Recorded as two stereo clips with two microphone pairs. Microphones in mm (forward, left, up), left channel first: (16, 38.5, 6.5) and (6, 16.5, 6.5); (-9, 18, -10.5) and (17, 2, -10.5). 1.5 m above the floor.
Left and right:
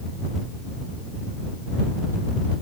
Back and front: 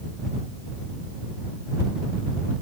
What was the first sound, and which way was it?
Only background noise.